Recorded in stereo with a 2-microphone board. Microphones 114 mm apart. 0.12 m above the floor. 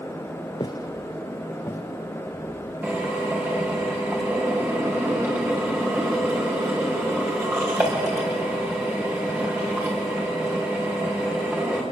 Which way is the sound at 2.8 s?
20° right (ahead or behind).